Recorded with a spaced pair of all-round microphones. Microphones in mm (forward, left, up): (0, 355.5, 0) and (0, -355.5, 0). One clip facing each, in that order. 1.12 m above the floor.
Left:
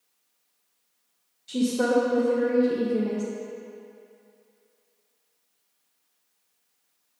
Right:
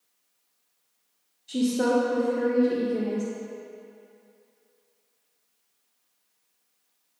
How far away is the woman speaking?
About 0.7 m.